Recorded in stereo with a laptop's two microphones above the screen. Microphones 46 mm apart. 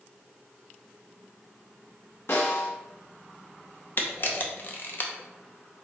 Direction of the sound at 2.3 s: 60° left (ahead or behind).